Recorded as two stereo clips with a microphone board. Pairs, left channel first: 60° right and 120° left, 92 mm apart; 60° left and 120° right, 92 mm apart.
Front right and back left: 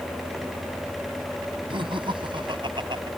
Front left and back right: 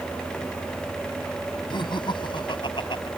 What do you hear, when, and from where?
1.7 s laughter: 95° left; by 3.1 s 90° left